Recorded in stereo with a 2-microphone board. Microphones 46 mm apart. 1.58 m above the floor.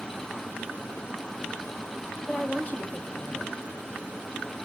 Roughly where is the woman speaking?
Left.